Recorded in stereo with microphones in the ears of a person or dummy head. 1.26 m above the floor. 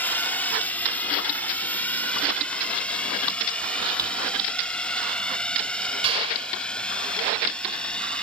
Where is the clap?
35° right (ahead or behind).